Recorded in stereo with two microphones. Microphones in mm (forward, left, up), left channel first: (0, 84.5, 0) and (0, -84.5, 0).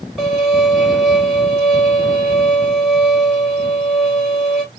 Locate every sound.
0.2 s a violin: centre (ahead or behind), 1.4 m